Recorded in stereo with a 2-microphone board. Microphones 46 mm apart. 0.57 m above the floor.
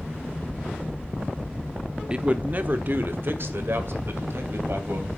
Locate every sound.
2.1 s a man speaking: 20° right (ahead or behind), 0.9 m; by 5.1 s 65° right (ahead or behind), 3.5 m